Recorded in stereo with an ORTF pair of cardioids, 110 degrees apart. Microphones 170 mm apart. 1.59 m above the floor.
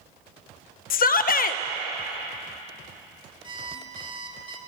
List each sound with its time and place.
0.9 s a shout: 60° left, 1.3 m
3.4 s an alarm clock: 30° right, 3 m